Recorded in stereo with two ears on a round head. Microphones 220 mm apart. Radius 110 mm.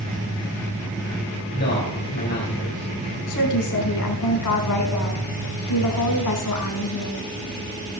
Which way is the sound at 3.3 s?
80° left.